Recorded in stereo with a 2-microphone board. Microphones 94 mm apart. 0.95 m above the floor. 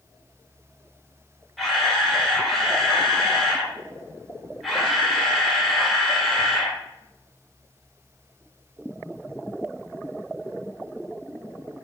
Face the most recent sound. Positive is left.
turn(degrees=0)  # may be behind; listen again after turning